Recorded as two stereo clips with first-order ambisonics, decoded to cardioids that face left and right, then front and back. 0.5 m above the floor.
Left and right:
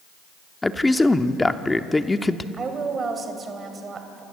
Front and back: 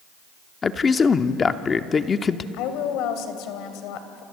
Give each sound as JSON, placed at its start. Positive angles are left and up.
{"t": 0.6, "sound": "a man speaking", "azimuth_deg": 20, "distance_m": 0.7}
{"t": 2.5, "sound": "a woman speaking", "azimuth_deg": -25, "distance_m": 2.5}